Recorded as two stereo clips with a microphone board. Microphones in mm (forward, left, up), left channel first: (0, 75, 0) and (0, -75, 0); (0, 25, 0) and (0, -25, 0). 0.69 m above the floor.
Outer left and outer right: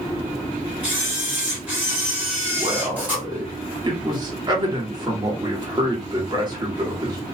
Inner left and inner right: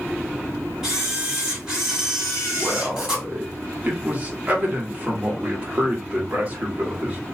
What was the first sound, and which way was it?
A camera shutter, 10° right (ahead or behind).